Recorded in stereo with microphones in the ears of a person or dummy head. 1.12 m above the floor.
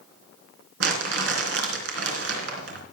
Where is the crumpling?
65° right (ahead or behind), 3 m.